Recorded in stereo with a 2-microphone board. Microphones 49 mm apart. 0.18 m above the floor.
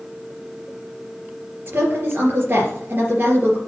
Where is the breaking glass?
I don't hear breaking glass.